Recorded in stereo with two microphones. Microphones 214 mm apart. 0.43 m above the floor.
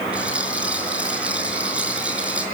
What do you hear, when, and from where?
0.1 s a rattle: 5° right (ahead or behind), 5.5 m